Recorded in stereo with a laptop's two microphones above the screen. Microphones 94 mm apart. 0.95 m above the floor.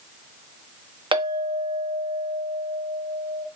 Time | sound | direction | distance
1.1 | a clink | 65° right (ahead or behind) | 0.7 m